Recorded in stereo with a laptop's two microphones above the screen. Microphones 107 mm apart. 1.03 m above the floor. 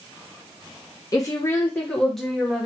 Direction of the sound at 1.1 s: 30° left (ahead or behind).